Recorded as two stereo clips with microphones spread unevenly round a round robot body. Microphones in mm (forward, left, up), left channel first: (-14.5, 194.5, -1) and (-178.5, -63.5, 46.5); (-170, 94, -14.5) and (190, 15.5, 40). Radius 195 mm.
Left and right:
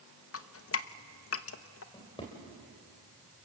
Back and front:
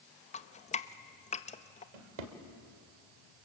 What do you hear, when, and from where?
0.3 s dripping: 100° left, 0.9 m
1.9 s a drawer: 25° right, 2.5 m